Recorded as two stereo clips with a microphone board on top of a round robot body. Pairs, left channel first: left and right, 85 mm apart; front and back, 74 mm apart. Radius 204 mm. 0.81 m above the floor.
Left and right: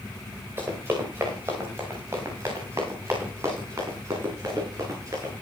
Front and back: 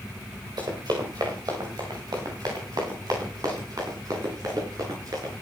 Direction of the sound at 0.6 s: 150° right.